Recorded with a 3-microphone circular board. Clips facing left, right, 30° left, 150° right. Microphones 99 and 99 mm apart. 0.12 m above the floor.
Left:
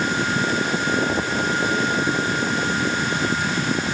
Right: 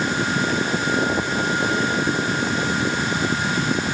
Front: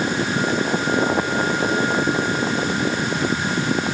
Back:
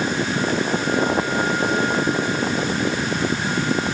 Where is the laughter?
No laughter in this recording.